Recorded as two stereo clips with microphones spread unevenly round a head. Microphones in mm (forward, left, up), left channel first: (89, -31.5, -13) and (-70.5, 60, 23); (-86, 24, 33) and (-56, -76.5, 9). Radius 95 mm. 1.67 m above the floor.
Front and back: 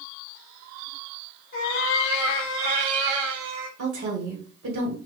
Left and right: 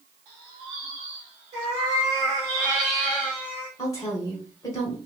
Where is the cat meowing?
65° right, 1.2 m; by 3.7 s 105° left, 1.2 m.